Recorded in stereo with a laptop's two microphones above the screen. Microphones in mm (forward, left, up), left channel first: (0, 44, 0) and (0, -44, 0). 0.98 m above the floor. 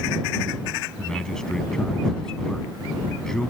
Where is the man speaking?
10° left (ahead or behind).